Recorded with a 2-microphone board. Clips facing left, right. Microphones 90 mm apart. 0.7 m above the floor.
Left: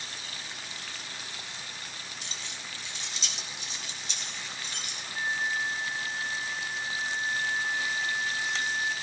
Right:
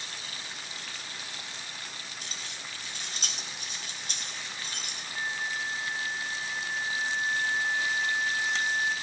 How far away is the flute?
About 8 m.